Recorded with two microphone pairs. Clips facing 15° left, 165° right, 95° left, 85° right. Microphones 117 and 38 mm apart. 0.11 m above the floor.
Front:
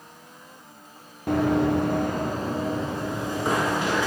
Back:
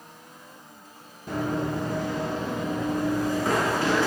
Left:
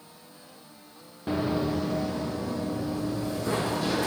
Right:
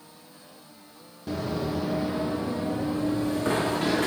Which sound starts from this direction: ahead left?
Running footsteps, at 1.3 s.